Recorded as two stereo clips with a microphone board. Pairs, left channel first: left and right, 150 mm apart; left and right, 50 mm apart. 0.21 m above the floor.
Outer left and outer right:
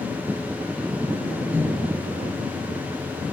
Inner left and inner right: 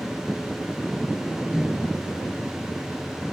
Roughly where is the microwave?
Centre.